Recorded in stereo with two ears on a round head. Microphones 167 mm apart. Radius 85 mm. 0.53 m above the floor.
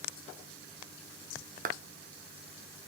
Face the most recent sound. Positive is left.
turn(degrees=-45)  # may be behind; listen again after turning